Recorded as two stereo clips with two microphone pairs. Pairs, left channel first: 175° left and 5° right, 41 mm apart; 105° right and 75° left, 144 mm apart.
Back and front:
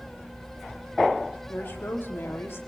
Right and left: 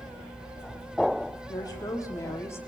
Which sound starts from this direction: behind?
A woman speaking, at 1.5 s.